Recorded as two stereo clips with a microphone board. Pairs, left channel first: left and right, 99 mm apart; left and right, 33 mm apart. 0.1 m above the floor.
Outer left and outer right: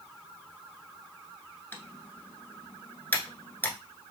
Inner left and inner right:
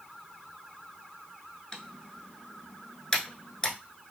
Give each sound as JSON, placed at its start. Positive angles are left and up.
{"t": 1.7, "sound": "typing on a keyboard", "side_deg": 20, "distance_m": 0.7}